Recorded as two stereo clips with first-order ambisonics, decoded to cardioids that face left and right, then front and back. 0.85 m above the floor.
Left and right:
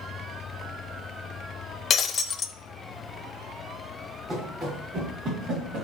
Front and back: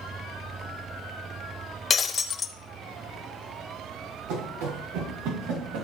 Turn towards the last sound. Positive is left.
turn(degrees=-155)